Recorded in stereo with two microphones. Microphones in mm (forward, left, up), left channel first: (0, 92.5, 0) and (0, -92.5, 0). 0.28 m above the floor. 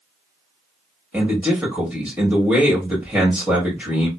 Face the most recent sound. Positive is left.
turn(degrees=-10)  # may be behind; listen again after turning